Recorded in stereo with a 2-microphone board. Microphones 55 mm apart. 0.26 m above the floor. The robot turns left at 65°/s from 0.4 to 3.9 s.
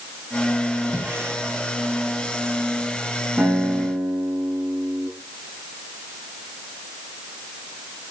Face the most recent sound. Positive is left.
turn(degrees=-55)